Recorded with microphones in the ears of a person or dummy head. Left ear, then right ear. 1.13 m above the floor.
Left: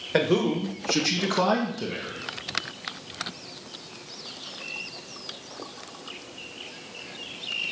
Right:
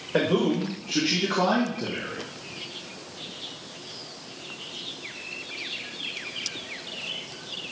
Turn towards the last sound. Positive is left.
turn(degrees=50)  # may be behind; listen again after turning